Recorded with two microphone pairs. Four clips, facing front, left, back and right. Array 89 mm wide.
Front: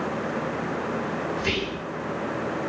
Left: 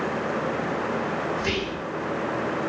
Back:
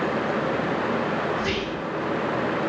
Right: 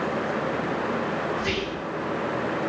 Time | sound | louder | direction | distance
1.4 | whispering | even, back 2 dB | 55° left | 1.1 m